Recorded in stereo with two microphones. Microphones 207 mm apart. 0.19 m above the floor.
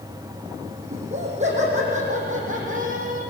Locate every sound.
0.9 s laughter: 30° right (ahead or behind), 8 m; by 3.2 s 40° right (ahead or behind), 7.5 m